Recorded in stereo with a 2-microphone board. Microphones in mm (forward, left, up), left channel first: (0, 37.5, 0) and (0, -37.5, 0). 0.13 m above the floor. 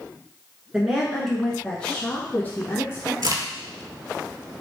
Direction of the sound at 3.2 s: 55° right (ahead or behind).